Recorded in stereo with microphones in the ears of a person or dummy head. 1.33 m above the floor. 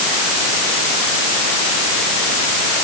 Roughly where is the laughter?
No laughter in this recording.